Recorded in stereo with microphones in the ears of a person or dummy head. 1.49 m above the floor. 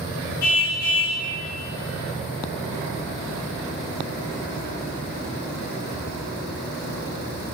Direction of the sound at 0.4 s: 50° left (ahead or behind).